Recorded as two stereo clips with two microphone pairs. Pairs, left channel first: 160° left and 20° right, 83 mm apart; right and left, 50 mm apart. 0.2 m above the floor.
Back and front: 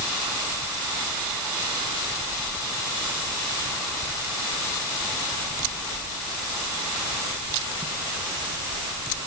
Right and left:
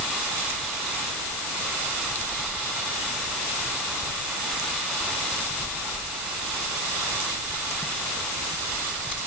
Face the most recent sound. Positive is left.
No sound to turn to.